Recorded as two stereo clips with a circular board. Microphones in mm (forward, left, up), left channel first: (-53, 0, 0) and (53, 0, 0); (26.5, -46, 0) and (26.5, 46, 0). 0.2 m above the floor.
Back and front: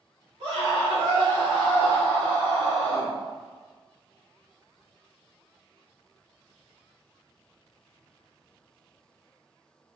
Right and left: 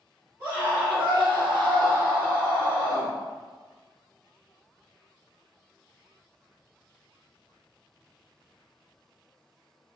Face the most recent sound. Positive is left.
turn(degrees=105)